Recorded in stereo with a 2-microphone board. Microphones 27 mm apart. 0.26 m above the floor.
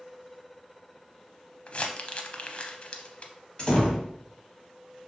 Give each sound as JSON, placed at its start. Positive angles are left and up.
{"t": 1.7, "sound": "crumpling", "side_deg": 50, "distance_m": 0.6}
{"t": 3.6, "sound": "a door slam", "side_deg": 35, "distance_m": 1.1}